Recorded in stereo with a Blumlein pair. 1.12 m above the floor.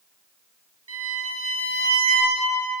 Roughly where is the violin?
Ahead right.